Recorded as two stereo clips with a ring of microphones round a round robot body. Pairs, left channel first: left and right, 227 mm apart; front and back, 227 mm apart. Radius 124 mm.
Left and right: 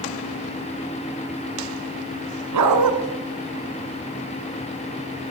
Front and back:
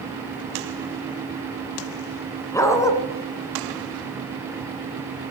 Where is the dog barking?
80° right, 2.0 m.